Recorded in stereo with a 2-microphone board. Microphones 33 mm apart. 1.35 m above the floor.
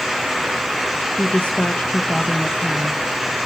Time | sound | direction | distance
1.1 | a woman speaking | 50° left (ahead or behind) | 1.2 m